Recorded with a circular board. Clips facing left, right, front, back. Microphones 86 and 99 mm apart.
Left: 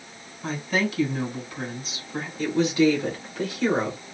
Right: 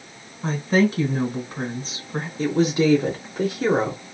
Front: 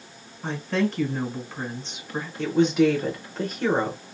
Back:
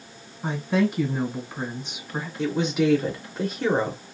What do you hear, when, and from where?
0.4 s a woman speaking: 105° right, 1.3 m
2.4 s a woman speaking: 95° right, 0.8 m